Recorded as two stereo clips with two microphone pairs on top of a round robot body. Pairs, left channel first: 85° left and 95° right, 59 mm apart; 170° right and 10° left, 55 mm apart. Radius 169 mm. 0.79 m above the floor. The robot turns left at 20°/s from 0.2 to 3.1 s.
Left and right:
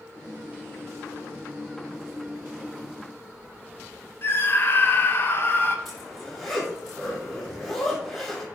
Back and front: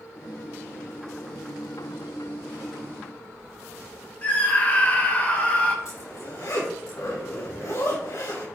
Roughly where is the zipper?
Behind.